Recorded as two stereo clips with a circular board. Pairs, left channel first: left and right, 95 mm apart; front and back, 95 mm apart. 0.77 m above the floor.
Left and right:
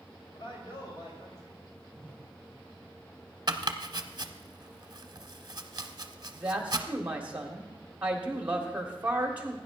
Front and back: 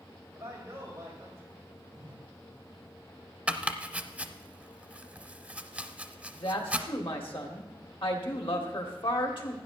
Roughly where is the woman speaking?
Ahead.